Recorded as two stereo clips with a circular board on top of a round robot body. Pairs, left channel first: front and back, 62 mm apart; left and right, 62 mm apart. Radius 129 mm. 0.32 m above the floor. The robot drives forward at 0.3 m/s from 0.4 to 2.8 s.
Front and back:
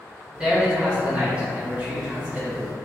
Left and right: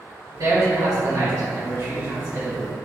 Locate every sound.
0.4 s a man speaking: 100° right, 1.9 m; by 2.8 s 125° right, 2 m